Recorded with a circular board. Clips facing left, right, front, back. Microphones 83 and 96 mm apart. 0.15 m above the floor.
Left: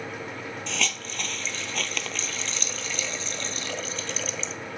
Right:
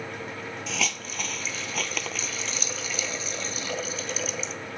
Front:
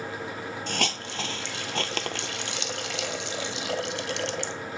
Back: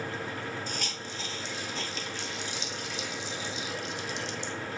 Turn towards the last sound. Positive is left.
turn(degrees=-5)